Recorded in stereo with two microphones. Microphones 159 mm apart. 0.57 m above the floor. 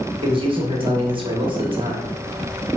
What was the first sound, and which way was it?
A man speaking, 30° right (ahead or behind).